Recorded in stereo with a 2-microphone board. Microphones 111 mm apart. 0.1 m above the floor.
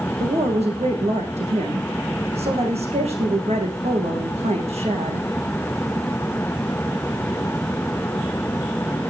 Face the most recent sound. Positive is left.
turn(degrees=-70)  # may be behind; listen again after turning